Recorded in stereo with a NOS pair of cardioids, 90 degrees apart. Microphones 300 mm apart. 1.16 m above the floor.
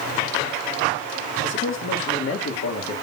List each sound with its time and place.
1.4 s a man speaking: 40° left, 2.5 m; by 3.0 s 55° left, 3 m